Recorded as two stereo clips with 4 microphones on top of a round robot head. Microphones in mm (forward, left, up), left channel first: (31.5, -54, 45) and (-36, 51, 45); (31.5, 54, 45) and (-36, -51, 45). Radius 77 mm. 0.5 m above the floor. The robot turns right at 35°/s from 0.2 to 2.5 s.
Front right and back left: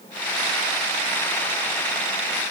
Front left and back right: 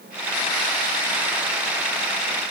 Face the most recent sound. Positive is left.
No sound to turn to.